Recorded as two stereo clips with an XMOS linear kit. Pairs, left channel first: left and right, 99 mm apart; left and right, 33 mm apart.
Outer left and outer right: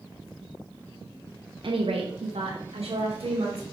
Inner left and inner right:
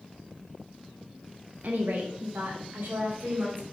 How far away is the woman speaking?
About 0.9 m.